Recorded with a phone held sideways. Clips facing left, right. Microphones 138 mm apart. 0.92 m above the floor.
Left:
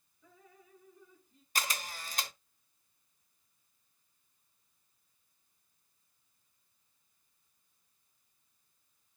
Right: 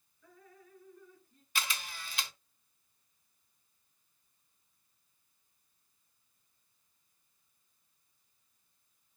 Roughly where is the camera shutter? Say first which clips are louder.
Left 2 dB; left.